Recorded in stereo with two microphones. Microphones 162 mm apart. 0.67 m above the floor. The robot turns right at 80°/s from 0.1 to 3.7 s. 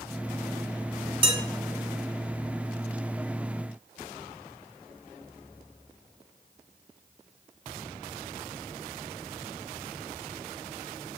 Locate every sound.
1.2 s dishes clattering: 35° right (ahead or behind), 1.0 m; by 1.4 s 25° right (ahead or behind), 1.0 m